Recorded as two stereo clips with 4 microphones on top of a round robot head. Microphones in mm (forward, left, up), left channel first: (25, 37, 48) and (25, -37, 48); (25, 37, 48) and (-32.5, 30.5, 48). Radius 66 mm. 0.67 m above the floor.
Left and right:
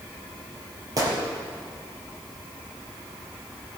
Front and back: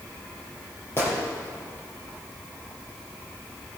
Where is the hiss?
No hiss in this recording.